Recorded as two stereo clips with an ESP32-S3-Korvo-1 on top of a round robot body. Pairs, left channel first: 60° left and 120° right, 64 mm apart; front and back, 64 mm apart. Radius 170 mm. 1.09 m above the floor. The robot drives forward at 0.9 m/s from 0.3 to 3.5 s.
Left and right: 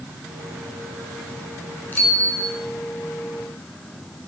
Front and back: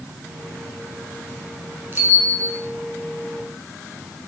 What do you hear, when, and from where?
1.9 s a bicycle bell: 120° left, 3.5 m; by 2.5 s 130° left, 3.5 m